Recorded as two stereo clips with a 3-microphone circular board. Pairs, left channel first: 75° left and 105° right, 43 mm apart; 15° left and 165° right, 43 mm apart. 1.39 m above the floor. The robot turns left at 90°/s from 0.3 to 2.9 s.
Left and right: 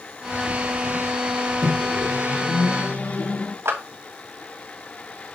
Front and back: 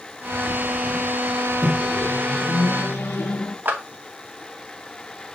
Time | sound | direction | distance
0.2 | a bird | 25° right | 4.5 m
1.6 | a microwave | 135° left | 1.3 m
3.6 | a clap | 120° right | 2 m